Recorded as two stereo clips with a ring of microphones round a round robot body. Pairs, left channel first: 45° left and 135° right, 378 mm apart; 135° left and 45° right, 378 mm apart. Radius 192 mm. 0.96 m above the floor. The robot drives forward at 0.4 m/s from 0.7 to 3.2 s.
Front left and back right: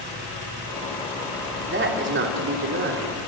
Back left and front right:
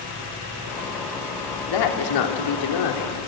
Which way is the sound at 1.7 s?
165° left.